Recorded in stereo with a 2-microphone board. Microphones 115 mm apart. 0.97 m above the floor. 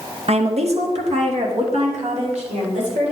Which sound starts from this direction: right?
A woman speaking, at 0.3 s.